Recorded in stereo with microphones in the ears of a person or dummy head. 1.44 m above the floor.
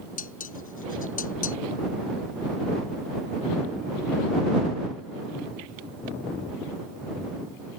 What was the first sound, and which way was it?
Dishes clattering, 45° left (ahead or behind).